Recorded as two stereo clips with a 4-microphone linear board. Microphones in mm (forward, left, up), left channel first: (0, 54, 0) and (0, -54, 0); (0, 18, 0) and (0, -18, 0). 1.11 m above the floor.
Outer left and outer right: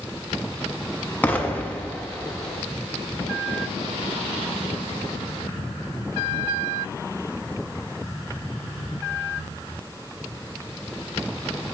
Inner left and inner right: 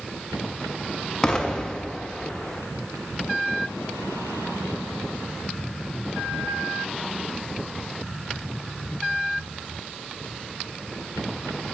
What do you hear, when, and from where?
1.2 s an explosion: 15° left (ahead or behind), 0.6 m